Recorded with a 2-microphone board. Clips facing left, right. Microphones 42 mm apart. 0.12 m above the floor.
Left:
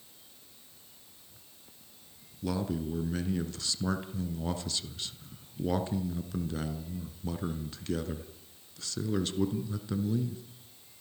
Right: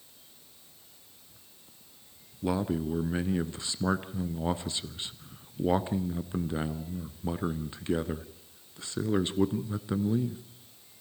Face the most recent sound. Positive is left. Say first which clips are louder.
# right 3 dB
turn(degrees=-25)  # may be behind; listen again after turning